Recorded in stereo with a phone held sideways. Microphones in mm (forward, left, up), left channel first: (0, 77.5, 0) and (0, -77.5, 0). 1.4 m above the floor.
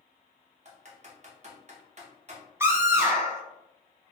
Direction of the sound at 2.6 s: 15° right (ahead or behind).